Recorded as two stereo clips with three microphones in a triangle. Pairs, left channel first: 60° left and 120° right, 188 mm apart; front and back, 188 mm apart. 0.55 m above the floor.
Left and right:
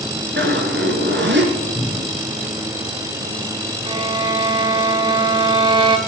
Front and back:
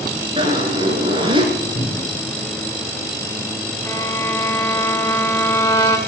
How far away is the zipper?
About 2.5 m.